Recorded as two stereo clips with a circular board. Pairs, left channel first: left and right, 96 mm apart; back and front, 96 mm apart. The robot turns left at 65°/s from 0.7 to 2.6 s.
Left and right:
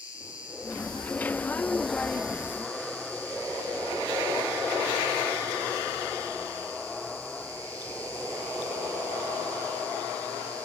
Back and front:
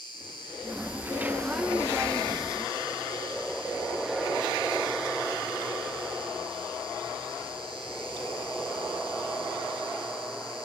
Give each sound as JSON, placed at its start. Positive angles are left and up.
{"t": 0.0, "sound": "an insect", "azimuth_deg": 145, "distance_m": 3.0}